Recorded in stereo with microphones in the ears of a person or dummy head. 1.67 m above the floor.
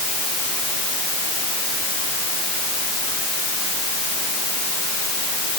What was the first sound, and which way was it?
Only background noise.